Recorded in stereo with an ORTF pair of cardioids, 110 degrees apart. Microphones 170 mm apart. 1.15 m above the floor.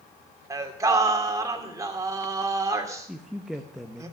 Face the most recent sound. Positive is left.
turn(degrees=-5)